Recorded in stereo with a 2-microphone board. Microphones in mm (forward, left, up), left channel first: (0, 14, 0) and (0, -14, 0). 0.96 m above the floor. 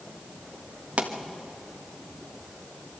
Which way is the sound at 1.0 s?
55° right (ahead or behind).